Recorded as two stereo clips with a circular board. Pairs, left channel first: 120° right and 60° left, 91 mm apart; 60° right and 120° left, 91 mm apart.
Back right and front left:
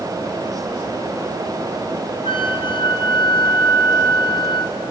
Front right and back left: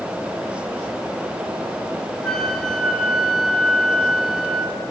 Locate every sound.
2.2 s a flute: 145° right, 1.6 m